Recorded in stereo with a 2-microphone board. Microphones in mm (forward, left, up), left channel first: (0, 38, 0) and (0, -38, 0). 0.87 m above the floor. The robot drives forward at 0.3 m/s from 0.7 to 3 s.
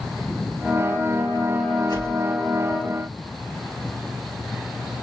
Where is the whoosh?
75° left (ahead or behind), 3 m.